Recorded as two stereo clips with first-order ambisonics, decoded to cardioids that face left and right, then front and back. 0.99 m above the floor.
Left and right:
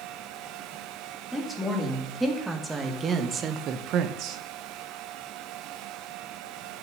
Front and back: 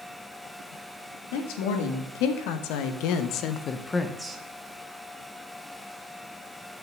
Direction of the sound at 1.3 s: Straight ahead.